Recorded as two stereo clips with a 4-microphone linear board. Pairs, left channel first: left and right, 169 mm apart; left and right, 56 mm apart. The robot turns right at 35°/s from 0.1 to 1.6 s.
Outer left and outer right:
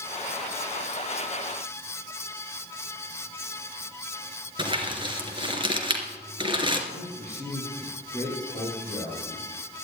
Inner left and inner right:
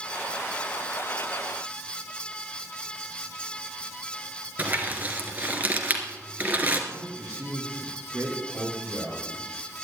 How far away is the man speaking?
About 5.5 m.